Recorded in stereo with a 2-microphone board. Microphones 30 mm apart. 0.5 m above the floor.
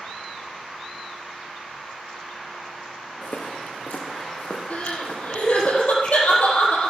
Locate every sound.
3.2 s footsteps: 80° left, 2.5 m
4.7 s crying: 50° left (ahead or behind), 4.5 m